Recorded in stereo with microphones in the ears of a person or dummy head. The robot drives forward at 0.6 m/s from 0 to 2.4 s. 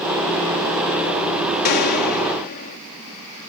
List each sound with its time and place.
1.6 s a gunshot: 55° left (ahead or behind); by 2.8 s 50° left (ahead or behind)